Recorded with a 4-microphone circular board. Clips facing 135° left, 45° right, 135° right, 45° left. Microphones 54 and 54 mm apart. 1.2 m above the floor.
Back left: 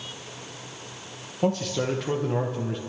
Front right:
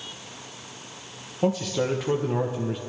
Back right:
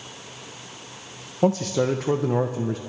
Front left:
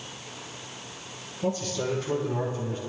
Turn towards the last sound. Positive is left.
turn(degrees=-135)